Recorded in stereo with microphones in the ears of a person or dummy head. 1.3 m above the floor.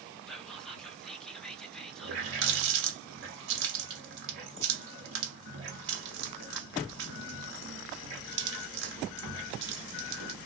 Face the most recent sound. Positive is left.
turn(degrees=-65)  # may be behind; listen again after turning